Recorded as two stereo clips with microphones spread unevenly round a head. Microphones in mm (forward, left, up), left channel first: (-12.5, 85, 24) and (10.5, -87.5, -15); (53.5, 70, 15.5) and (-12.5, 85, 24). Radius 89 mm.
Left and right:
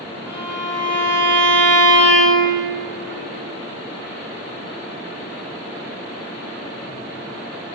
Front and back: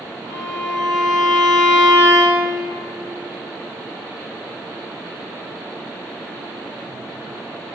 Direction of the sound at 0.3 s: 165° right.